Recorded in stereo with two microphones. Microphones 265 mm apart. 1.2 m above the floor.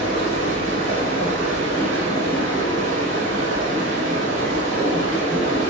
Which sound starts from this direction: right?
Running water, at 0.0 s.